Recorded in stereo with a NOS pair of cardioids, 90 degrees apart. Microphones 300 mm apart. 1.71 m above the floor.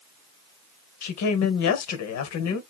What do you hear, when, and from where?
1.0 s a woman speaking: 65° left, 1.1 m